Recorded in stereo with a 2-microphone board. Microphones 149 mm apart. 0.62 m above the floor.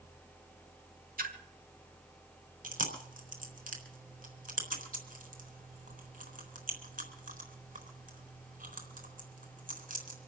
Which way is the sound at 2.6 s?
70° right (ahead or behind).